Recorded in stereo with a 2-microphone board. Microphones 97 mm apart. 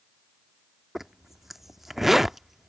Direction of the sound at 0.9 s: Centre (ahead or behind).